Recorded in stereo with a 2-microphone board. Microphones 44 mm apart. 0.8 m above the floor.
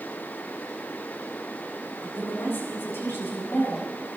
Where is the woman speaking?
60° left (ahead or behind), 8 m.